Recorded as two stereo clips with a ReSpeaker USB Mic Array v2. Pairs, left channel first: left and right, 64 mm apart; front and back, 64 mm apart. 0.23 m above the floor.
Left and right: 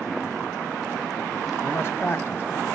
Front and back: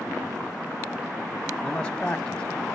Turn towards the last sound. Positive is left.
turn(degrees=70)